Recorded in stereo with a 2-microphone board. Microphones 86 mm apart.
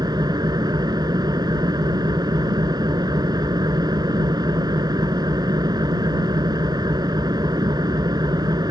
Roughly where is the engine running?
Right.